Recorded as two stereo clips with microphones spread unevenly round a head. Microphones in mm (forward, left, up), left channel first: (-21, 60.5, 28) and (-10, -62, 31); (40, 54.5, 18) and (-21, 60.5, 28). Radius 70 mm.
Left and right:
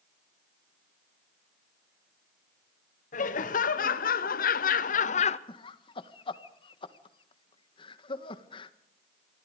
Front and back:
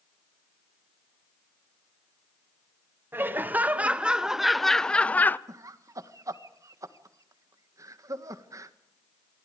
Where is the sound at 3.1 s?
115° left, 1.3 m; by 5.4 s 55° left, 0.8 m.